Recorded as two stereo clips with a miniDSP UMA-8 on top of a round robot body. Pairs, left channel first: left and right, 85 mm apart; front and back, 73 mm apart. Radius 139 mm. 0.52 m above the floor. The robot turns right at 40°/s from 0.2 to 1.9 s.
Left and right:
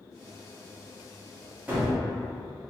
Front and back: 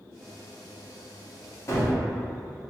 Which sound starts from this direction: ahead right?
A gunshot, at 1.7 s.